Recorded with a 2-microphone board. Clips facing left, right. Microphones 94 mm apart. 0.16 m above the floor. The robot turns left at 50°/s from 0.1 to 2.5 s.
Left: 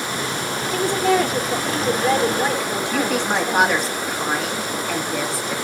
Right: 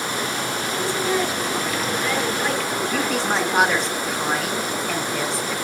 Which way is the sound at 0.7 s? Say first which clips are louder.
Left 6 dB; 105° left.